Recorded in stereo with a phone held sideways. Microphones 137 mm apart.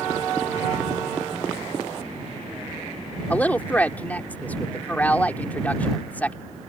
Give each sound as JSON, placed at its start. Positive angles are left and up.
{"t": 3.3, "sound": "a woman speaking", "side_deg": 10}